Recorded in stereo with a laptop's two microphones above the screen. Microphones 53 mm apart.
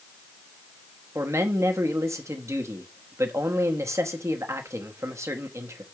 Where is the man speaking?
65° right (ahead or behind), 1.2 m.